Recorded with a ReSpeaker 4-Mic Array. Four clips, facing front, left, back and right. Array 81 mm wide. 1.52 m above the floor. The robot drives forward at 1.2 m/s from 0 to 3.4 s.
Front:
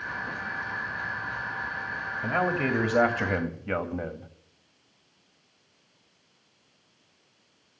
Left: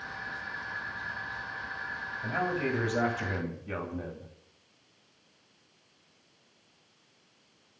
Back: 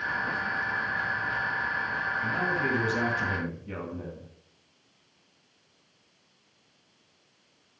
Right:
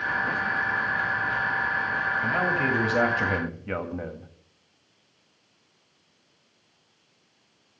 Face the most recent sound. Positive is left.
turn(degrees=-30)